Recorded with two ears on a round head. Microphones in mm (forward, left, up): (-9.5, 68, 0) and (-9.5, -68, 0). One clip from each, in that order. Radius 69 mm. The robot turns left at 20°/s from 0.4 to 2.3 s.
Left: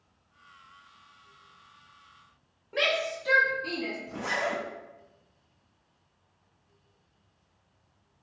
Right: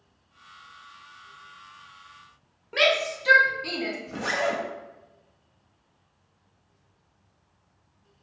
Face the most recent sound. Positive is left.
turn(degrees=-30)  # may be behind; listen again after turning